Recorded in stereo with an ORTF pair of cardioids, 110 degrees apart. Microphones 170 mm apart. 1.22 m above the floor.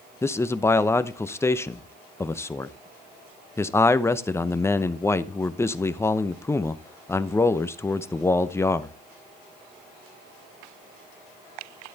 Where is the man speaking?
15° left, 0.8 m.